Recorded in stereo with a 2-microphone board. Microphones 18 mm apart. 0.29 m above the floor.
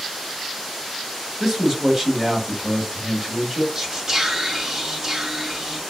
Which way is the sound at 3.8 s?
20° right (ahead or behind).